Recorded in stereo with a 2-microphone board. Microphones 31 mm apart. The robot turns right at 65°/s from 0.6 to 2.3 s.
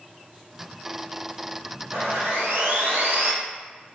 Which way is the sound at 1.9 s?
75° right (ahead or behind).